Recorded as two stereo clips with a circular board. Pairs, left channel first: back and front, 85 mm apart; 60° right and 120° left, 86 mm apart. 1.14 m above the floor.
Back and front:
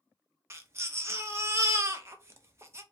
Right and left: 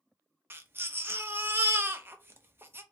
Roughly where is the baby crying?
Ahead left.